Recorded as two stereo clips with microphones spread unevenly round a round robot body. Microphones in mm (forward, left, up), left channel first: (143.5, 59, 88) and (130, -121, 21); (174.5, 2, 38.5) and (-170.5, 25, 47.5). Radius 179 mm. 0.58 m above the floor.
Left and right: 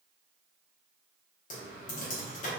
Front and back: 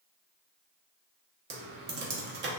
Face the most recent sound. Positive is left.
turn(degrees=135)